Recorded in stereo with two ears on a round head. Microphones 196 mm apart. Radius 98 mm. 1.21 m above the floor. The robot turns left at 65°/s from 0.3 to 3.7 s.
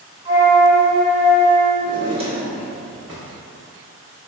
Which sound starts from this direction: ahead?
A drawer, at 1.8 s.